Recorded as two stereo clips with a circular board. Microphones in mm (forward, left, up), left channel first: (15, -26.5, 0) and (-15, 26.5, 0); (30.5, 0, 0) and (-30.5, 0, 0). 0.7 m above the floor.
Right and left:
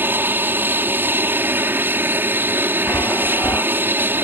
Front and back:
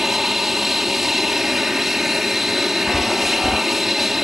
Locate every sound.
0.0 s an aircraft: 100° left
2.9 s a chime: 75° right